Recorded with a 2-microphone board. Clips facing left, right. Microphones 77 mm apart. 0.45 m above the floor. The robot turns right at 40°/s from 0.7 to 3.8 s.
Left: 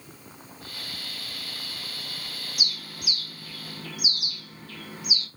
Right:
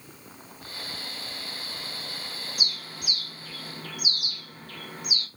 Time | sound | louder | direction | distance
2.6 | a bird | left 2 dB | 40° right (ahead or behind) | 0.6 m